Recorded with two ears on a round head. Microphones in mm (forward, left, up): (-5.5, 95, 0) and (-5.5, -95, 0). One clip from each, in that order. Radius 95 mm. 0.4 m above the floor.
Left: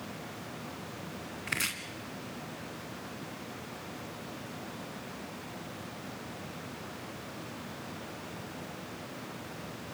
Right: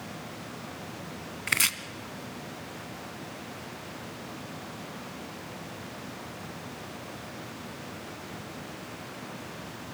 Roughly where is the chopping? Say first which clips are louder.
Right 7 dB; right.